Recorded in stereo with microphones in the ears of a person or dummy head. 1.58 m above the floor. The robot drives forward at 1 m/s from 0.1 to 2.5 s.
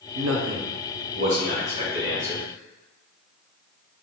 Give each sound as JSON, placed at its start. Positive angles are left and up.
{"t": 0.1, "sound": "a man speaking", "side_deg": -85, "distance_m": 0.9}